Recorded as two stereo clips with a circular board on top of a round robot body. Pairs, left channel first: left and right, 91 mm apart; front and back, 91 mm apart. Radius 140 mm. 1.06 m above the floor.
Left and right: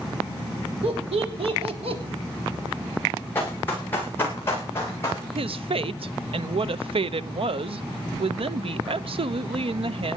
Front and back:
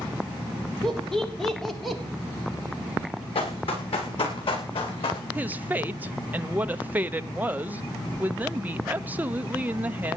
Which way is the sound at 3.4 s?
20° left.